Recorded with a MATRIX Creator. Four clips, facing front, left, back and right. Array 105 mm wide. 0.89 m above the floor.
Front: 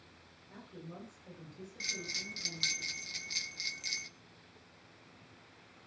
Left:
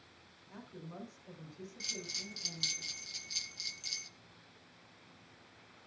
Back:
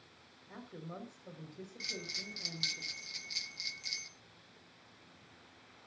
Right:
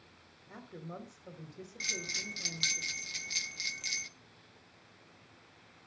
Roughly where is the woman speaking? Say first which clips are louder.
Right 3 dB, back 2 dB; behind right.